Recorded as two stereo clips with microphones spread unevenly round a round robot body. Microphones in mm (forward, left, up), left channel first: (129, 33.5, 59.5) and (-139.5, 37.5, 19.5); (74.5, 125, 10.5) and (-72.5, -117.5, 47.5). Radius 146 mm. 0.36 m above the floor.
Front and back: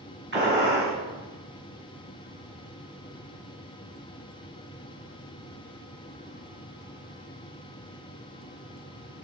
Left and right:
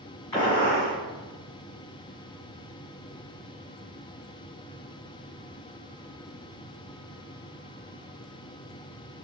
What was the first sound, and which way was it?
A gunshot, 135° left.